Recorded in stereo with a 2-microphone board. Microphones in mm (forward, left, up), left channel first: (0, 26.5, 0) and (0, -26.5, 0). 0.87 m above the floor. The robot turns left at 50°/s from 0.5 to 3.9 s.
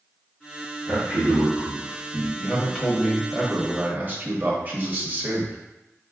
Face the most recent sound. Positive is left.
turn(degrees=-40)